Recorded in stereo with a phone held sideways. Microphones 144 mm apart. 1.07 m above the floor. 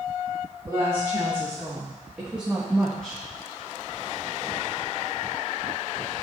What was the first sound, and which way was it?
A woman speaking, 20° right (ahead or behind).